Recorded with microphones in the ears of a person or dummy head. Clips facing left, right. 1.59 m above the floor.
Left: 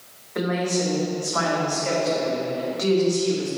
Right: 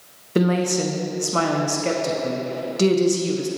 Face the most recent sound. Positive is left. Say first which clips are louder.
# right 4 dB
turn(degrees=-35)  # may be behind; listen again after turning